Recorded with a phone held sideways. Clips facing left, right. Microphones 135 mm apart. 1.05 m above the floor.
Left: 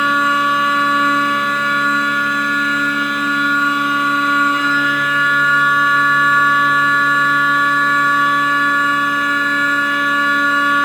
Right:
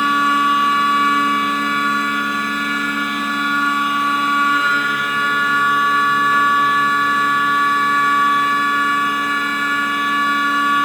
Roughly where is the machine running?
Right.